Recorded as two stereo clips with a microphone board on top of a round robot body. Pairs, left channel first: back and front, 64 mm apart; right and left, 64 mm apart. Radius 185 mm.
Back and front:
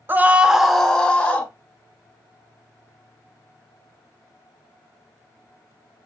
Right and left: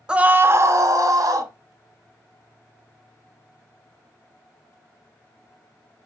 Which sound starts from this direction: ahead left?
A scream, at 0.1 s.